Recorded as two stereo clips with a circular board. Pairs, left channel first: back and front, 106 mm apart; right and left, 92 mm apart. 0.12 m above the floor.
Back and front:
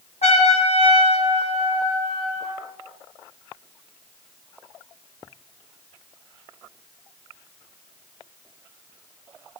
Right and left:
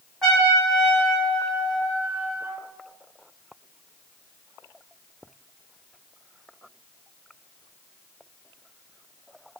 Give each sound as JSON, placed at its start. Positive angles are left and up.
{"t": 0.2, "sound": "a trumpet", "azimuth_deg": -175, "distance_m": 1.7}